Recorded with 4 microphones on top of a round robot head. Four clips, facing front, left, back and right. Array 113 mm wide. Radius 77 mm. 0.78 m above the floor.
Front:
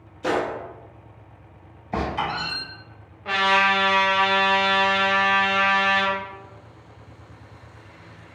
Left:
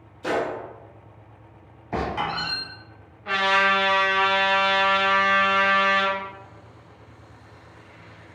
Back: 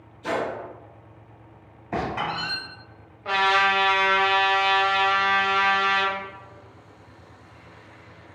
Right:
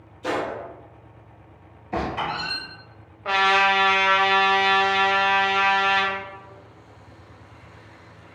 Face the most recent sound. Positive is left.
turn(degrees=-100)